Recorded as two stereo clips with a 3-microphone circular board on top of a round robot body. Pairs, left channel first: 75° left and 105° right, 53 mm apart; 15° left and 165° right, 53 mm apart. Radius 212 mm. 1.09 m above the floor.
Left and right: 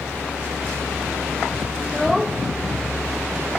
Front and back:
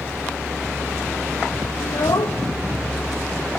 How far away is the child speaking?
About 0.6 m.